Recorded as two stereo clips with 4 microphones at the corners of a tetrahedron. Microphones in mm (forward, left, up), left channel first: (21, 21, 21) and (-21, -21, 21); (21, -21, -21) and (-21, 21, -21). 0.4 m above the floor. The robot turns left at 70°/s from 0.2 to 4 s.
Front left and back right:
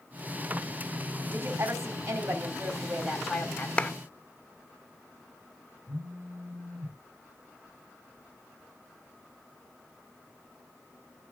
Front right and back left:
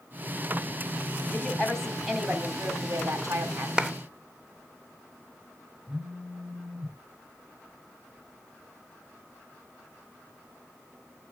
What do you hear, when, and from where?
1.3 s a woman speaking: 90° right, 2.5 m; by 3.7 s 105° left, 2.5 m
3.8 s a clap: 80° left, 0.6 m; by 3.9 s 70° left, 0.6 m
5.9 s a phone buzzing: 150° right, 6 m